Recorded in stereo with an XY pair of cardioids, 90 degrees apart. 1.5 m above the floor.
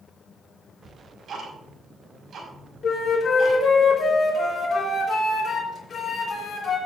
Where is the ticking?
60° right, 5 m.